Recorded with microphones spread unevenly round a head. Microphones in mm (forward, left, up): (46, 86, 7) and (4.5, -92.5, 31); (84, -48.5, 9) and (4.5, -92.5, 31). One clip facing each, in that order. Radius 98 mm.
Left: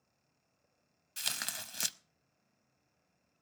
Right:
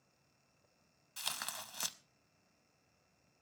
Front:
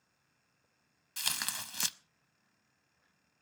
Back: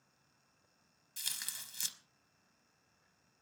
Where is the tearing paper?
15° left, 0.7 m.